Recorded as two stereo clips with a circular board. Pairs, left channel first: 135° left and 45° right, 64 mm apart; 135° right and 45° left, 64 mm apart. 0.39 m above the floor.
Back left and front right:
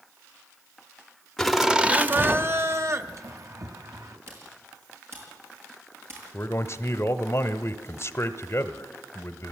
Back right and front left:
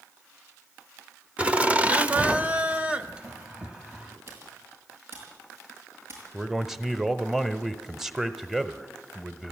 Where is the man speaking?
130° left, 1.1 m.